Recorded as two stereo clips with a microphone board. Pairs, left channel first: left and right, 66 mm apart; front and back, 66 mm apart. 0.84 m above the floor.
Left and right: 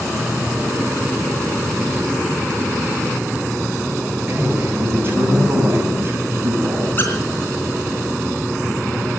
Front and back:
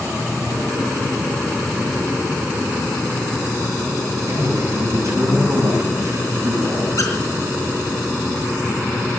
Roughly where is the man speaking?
Behind right.